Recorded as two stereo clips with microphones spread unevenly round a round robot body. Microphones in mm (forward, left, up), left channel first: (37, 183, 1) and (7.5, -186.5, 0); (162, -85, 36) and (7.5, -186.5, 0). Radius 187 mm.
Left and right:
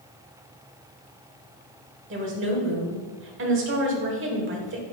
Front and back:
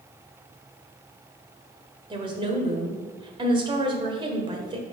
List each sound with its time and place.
2.1 s a woman speaking: 130° right, 1.2 m